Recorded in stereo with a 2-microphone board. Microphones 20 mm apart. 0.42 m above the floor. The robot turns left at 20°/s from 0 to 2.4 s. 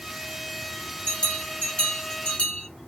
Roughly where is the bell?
Left.